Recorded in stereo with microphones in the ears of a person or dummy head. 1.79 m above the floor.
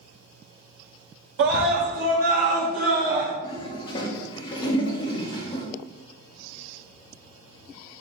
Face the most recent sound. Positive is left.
turn(degrees=30)  # may be behind; listen again after turning